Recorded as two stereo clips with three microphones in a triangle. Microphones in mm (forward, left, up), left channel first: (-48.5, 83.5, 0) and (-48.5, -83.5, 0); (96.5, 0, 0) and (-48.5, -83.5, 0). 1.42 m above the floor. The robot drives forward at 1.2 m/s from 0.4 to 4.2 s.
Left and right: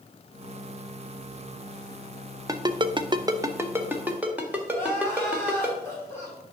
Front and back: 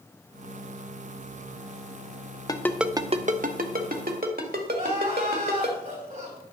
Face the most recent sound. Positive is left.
turn(degrees=170)